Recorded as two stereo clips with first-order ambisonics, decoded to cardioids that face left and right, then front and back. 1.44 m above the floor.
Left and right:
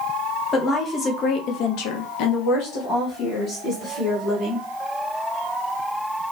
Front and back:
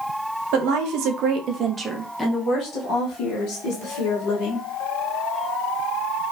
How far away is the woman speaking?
About 0.9 m.